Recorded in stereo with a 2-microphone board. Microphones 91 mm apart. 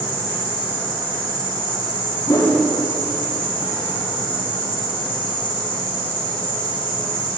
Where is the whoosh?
35° left (ahead or behind), 0.9 m.